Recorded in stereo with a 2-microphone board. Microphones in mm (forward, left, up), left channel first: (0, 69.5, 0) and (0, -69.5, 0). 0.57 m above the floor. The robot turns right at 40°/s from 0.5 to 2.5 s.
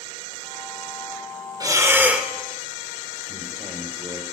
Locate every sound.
1.6 s breathing: 25° right (ahead or behind), 1.5 m; by 2.3 s 5° right (ahead or behind), 1.5 m
3.3 s a man speaking: 35° right (ahead or behind), 2.5 m